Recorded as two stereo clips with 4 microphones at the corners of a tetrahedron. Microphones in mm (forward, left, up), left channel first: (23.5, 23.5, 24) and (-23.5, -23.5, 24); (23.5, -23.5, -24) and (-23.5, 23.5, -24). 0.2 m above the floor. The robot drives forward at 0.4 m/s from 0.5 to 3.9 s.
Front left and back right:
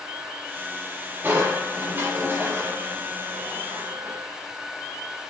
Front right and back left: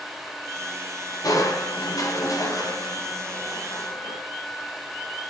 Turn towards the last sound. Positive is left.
turn(degrees=-85)